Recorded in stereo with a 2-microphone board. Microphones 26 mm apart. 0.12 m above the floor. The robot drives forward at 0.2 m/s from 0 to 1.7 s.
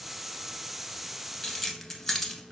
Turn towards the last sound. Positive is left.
turn(degrees=10)  # may be behind; listen again after turning